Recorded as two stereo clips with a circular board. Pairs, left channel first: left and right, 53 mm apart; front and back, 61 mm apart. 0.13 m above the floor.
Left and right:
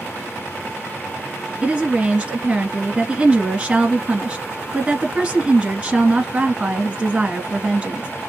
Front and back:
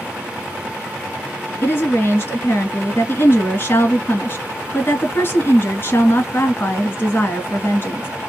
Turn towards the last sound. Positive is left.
turn(degrees=-30)